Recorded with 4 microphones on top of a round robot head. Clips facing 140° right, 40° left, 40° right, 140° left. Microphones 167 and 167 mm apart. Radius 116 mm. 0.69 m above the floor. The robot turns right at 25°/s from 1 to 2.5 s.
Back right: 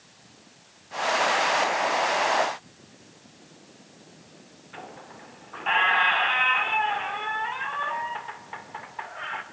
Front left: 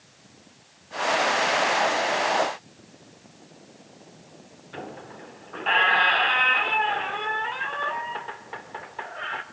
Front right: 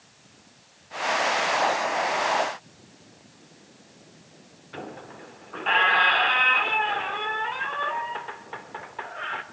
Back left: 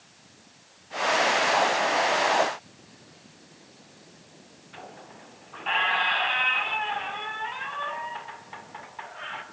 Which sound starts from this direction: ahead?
A squeak, at 4.7 s.